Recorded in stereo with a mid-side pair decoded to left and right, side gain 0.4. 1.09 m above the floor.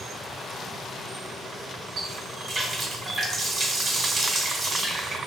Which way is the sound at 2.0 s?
55° right.